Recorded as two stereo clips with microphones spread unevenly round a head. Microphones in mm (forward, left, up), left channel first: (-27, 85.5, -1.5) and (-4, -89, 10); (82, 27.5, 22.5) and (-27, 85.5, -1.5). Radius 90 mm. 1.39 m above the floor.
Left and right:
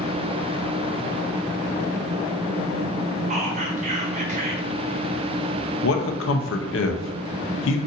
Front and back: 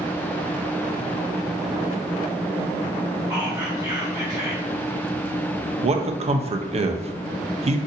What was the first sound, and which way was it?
Whispering, 135° right.